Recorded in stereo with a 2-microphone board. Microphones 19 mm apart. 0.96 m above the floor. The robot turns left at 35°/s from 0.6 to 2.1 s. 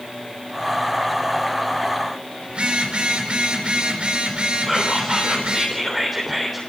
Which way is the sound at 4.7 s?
5° right (ahead or behind).